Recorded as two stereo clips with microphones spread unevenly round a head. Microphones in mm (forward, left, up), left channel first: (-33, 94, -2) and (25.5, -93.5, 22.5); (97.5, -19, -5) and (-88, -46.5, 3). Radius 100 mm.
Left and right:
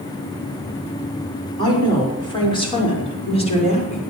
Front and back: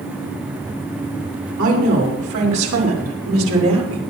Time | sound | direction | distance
1.6 | a woman speaking | straight behind | 5.5 m